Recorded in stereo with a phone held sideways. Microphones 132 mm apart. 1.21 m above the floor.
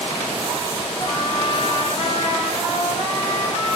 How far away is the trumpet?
About 4 m.